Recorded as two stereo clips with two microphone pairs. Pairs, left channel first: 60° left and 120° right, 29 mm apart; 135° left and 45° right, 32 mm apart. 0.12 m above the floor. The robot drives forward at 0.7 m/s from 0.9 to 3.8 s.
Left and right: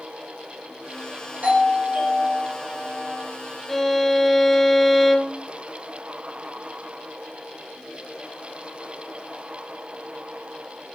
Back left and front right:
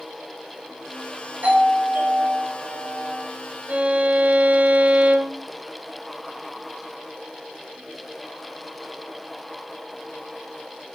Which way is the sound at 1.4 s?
80° right.